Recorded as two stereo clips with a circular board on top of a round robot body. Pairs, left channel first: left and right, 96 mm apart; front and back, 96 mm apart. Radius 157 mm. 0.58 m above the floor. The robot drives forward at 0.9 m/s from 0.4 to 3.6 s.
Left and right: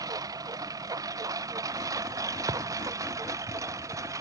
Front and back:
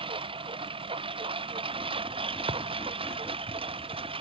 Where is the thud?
140° right.